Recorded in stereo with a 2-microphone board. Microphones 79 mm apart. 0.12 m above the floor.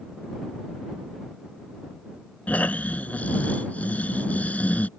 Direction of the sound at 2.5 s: 20° left (ahead or behind).